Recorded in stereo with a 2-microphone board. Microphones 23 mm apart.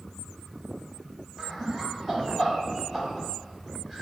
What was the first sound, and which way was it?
Laughter, 5° left (ahead or behind).